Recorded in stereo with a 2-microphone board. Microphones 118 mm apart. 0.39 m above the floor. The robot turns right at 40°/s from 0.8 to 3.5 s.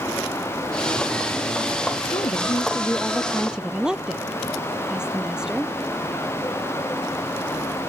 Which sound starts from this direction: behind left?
A woman speaking, at 2.1 s.